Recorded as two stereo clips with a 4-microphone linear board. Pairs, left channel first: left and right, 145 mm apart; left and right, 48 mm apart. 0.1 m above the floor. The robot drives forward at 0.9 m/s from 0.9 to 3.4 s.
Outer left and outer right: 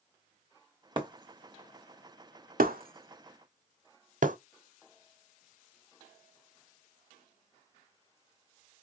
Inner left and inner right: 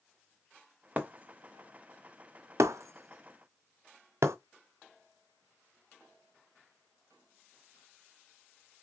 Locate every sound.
1.0 s breaking glass: 35° right (ahead or behind), 2 m; by 4.4 s 65° right (ahead or behind), 1.2 m